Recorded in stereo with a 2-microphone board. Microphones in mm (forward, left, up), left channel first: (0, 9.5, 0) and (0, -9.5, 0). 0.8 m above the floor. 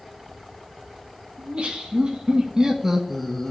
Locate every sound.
1.4 s laughter: 55° right (ahead or behind), 1.9 m; by 3.5 s 25° left (ahead or behind), 0.8 m